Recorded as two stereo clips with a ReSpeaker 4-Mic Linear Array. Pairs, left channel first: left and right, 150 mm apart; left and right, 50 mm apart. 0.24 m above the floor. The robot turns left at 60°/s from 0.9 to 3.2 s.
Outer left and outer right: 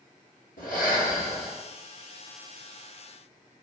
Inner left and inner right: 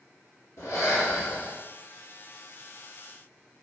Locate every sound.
0.6 s breathing: 70° left, 1.5 m; by 1.6 s 30° left, 1.5 m